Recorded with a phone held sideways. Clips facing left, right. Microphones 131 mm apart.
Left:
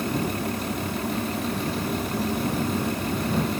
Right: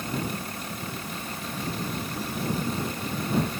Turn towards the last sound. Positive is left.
turn(degrees=85)